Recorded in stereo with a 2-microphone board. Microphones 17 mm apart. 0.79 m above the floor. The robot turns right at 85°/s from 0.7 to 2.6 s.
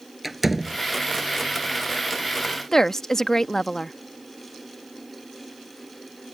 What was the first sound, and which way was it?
A door slam, 5° right (ahead or behind).